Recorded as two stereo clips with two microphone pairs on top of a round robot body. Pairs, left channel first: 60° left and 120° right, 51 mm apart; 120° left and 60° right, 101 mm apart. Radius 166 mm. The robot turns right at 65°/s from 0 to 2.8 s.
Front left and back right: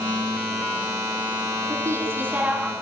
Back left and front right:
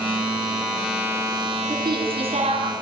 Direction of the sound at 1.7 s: 110° right.